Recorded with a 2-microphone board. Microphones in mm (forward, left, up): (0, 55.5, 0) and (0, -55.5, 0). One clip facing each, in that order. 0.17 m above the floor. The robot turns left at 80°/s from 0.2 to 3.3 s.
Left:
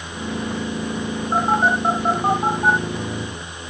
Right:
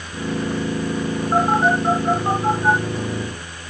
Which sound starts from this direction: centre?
A phone buzzing, at 1.3 s.